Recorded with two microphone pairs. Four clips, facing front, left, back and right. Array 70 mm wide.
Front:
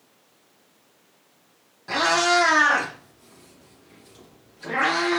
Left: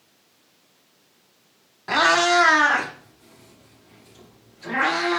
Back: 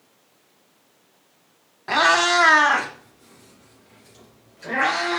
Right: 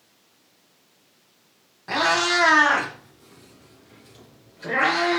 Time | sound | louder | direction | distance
1.9 | a cat meowing | left 4 dB, back 3 dB | 160° left | 0.9 m